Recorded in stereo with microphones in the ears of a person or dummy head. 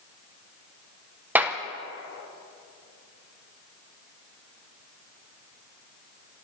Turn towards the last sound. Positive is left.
turn(degrees=-5)  # may be behind; listen again after turning